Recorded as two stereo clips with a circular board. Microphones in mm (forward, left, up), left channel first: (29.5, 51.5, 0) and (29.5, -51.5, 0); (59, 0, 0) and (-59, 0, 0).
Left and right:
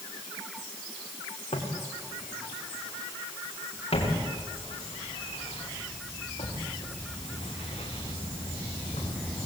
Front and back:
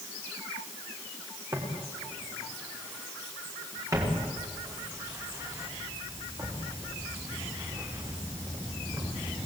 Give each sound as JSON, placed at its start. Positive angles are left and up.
{"t": 1.5, "sound": "footsteps", "azimuth_deg": 115, "distance_m": 6.0}